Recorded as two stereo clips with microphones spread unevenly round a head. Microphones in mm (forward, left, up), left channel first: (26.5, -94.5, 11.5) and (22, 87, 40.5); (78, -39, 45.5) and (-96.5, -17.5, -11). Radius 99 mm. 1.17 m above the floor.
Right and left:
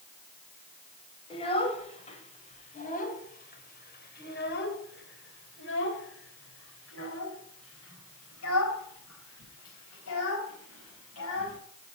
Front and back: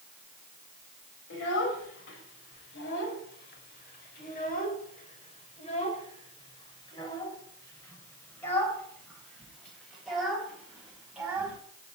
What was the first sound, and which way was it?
A child speaking, 25° right.